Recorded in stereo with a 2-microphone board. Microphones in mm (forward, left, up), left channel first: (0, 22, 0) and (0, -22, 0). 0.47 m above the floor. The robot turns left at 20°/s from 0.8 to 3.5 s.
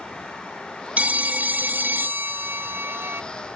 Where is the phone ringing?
40° right, 0.6 m; by 3.2 s 85° right, 0.6 m.